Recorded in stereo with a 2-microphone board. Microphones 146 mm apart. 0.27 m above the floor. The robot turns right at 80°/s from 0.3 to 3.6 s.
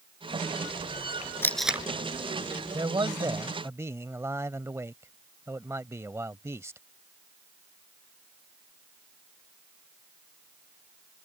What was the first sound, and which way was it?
Tape being pulled, 15° left (ahead or behind).